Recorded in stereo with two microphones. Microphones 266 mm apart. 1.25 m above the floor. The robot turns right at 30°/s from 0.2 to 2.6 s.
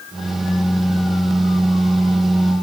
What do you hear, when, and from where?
Only background noise.